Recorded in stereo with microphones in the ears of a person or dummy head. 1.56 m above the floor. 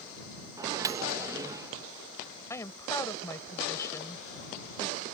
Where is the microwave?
20° right (ahead or behind).